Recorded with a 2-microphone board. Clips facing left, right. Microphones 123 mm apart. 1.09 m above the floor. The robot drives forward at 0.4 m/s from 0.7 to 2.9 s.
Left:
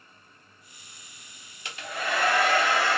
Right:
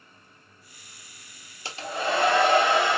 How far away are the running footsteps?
I don't hear running footsteps.